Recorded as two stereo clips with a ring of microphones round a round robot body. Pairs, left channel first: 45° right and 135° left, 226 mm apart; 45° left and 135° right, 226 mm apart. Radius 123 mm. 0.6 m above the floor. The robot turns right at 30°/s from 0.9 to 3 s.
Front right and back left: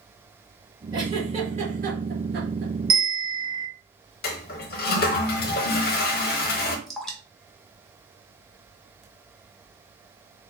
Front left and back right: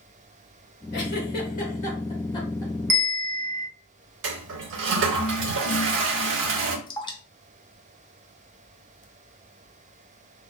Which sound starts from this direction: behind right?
A bell, at 2.9 s.